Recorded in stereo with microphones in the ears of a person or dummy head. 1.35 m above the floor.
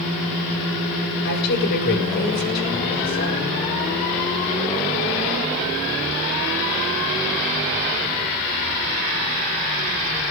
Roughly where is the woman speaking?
Left.